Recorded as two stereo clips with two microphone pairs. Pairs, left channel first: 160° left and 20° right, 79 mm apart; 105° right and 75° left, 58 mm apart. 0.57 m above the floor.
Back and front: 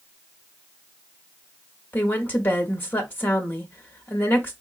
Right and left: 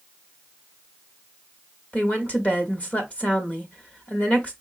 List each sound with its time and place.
1.9 s a woman speaking: 150° right, 1.0 m